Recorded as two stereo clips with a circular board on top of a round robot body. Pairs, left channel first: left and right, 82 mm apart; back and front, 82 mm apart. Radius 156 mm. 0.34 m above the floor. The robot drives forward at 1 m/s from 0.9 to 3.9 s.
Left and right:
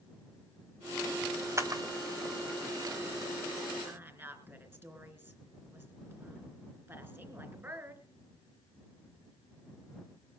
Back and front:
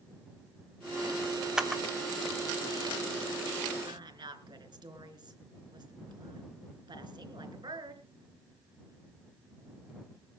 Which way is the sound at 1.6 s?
75° right.